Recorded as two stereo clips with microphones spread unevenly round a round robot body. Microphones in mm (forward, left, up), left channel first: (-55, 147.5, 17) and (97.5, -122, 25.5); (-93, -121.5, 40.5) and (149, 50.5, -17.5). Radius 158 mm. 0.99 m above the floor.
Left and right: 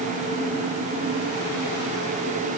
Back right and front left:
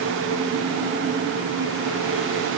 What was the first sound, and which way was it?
Only background noise.